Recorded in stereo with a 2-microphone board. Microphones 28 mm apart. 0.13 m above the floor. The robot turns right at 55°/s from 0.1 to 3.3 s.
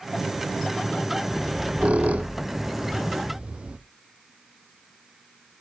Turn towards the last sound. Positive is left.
turn(degrees=-40)  # may be behind; listen again after turning